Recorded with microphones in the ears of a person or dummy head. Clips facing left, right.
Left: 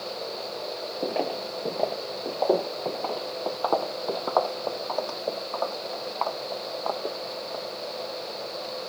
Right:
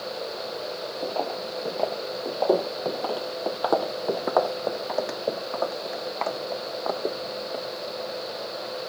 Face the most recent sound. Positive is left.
turn(degrees=-30)  # may be behind; listen again after turning